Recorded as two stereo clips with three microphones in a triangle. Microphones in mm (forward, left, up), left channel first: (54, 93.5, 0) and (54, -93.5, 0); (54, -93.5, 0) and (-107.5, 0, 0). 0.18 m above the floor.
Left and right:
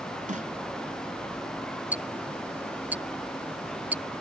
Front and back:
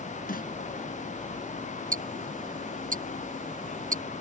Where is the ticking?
170° right.